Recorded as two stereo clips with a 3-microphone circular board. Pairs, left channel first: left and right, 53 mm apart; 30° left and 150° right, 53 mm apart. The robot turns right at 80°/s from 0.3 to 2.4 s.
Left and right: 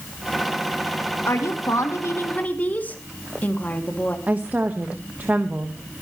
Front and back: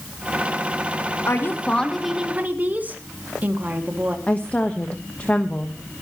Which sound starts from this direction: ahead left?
A woman speaking, at 1.3 s.